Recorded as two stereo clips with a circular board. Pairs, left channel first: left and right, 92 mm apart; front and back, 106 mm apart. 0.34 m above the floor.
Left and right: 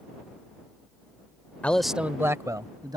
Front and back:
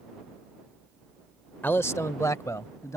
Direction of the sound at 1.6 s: 40° left.